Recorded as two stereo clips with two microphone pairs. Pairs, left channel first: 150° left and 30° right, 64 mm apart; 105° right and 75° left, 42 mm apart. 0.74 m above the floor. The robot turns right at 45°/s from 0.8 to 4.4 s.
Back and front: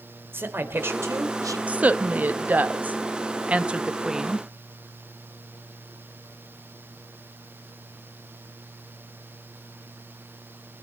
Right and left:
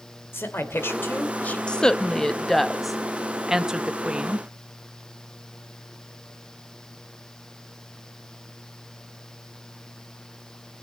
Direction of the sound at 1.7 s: 70° right.